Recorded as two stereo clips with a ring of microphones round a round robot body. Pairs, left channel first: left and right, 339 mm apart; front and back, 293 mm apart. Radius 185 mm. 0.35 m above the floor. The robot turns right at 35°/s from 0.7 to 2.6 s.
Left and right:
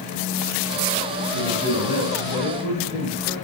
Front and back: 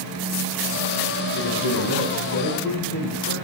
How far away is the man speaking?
About 3.5 m.